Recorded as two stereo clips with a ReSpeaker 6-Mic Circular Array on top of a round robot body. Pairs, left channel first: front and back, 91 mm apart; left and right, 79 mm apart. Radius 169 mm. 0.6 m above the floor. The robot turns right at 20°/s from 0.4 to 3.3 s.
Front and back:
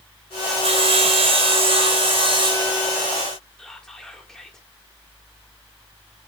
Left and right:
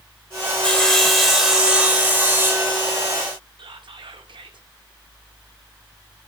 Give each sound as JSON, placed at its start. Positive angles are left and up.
{"t": 0.6, "sound": "sawing", "azimuth_deg": 170, "distance_m": 3.5}
{"t": 3.6, "sound": "whispering", "azimuth_deg": -85, "distance_m": 2.0}